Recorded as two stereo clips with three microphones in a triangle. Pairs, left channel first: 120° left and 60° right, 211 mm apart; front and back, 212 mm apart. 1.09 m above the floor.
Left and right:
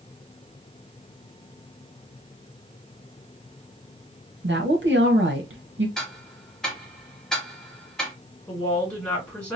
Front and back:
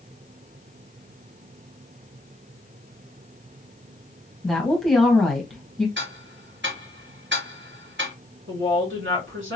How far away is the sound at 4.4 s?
About 1.3 m.